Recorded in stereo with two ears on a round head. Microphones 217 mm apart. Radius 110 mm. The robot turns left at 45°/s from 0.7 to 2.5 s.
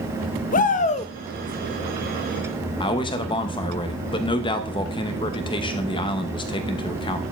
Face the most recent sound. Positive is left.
turn(degrees=20)  # may be behind; listen again after turning